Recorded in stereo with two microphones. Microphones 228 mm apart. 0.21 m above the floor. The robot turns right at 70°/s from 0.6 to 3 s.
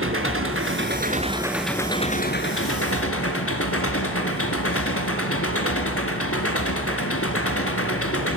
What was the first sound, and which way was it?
An engine running, 75° right.